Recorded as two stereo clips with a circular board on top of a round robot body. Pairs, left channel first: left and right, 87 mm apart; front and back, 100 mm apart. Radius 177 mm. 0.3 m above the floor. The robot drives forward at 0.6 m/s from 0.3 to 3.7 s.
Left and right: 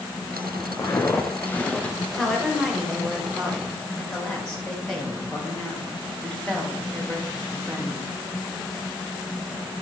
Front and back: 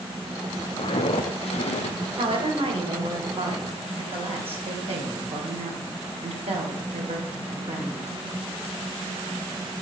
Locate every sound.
0.8 s footsteps: 30° left, 1.2 m; by 2.0 s 10° left, 1.0 m
2.2 s a woman speaking: 175° left, 2.5 m